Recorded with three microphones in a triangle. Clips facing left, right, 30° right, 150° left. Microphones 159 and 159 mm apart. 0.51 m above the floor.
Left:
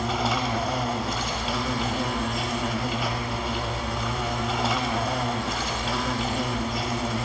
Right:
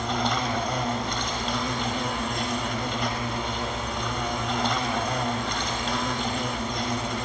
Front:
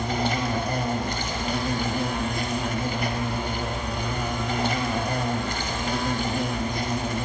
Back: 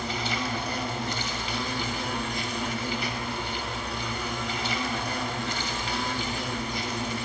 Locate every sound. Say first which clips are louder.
0.0 s an insect: left 1 dB, front 5 dB; 5° left, 1.9 m